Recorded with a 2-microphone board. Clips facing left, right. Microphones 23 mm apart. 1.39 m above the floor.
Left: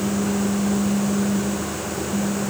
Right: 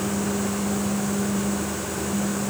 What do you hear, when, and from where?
Only background noise.